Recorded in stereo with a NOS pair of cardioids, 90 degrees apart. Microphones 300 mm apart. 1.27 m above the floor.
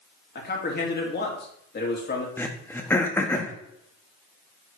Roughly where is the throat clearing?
Ahead.